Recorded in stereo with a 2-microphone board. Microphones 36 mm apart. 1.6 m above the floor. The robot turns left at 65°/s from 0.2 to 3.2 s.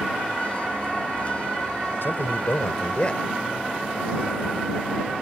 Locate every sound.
2.0 s a man speaking: 100° left; by 3.2 s 20° left